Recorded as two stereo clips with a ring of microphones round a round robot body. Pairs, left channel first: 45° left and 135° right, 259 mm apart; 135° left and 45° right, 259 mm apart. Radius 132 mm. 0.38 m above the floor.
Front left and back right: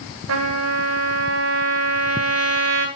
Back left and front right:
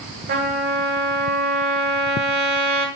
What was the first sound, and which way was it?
A trumpet, 95° right.